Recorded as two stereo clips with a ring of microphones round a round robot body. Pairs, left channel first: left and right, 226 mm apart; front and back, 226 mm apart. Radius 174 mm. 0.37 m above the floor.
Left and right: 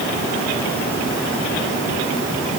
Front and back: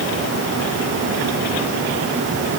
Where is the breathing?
No breathing in this recording.